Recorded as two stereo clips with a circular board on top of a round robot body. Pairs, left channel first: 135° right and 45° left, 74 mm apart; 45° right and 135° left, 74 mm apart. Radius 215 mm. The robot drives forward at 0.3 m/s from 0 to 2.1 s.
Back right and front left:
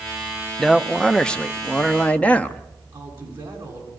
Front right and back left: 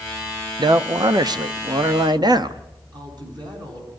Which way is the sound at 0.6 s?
140° left.